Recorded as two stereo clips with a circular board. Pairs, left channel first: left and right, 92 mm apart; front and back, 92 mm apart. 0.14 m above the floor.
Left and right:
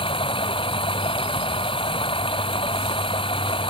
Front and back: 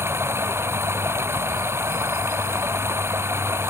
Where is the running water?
115° left.